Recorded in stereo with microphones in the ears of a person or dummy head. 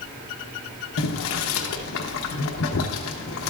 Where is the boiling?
80° left, 0.8 m.